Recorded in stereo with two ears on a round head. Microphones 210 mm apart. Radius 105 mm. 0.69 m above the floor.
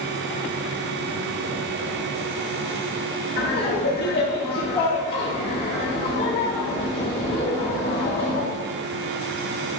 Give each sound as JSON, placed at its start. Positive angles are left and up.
{"t": 3.4, "sound": "laughter", "side_deg": 30, "distance_m": 3.0}